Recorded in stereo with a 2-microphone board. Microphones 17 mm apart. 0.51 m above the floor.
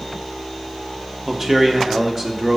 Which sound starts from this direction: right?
A man speaking, at 1.3 s.